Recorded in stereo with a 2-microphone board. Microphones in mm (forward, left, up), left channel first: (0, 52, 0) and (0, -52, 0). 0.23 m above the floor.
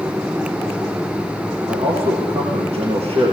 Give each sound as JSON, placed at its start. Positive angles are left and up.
{"t": 1.7, "sound": "a man speaking", "side_deg": -80, "distance_m": 9.0}